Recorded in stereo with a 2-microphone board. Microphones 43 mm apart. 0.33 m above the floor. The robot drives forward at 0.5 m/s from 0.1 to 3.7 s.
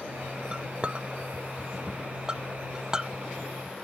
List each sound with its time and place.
0.5 s a clink: 25° right (ahead or behind); by 3.9 s 15° right (ahead or behind)